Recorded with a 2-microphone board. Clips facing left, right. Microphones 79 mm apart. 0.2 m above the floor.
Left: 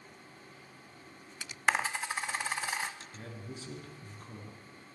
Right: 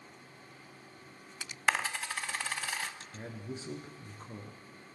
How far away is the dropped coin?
About 0.5 m.